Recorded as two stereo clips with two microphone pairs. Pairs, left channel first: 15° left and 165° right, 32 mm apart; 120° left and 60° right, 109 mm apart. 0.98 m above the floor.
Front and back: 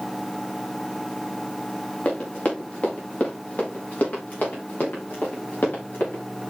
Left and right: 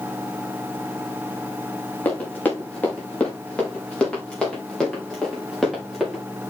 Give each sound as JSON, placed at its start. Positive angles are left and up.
{"t": 2.0, "sound": "running footsteps", "azimuth_deg": 45, "distance_m": 7.0}